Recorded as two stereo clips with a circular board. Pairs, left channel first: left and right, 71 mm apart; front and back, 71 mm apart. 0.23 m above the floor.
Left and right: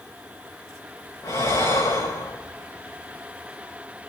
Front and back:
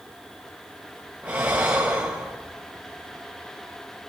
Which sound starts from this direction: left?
Breathing, at 1.2 s.